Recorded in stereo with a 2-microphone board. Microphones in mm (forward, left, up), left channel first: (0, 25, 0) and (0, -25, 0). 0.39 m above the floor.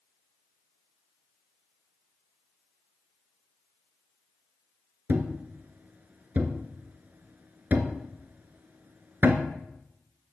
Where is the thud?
40° right (ahead or behind), 1.7 m.